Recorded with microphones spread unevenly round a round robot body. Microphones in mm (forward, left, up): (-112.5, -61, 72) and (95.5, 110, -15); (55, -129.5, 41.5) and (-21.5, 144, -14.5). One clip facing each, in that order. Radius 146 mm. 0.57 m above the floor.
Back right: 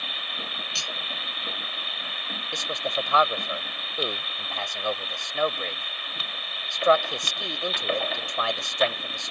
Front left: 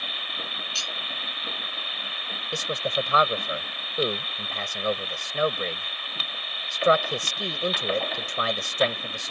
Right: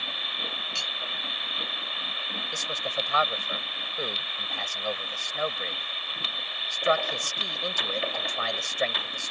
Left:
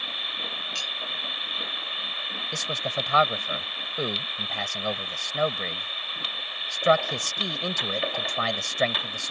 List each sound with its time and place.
0.8 s cutlery clinking: 155° right
2.5 s a man speaking: 100° left